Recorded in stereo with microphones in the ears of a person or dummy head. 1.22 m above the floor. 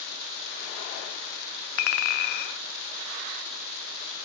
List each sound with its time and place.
1.8 s a clink: 60° left (ahead or behind), 0.5 m